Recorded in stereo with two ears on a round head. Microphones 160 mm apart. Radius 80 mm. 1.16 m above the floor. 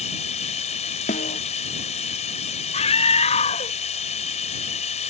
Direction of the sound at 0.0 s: 40° left (ahead or behind).